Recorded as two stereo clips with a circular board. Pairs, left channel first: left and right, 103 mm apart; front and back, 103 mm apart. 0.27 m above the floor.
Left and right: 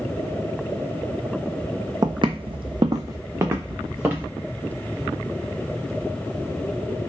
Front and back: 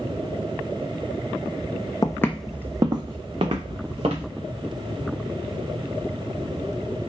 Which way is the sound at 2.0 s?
45° right.